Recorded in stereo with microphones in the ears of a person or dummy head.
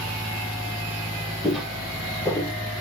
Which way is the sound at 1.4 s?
5° right (ahead or behind).